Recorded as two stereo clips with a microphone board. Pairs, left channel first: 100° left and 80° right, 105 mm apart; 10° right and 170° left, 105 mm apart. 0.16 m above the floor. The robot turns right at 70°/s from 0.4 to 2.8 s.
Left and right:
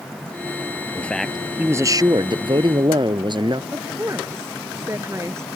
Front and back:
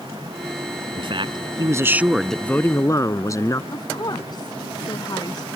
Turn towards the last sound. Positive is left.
turn(degrees=-30)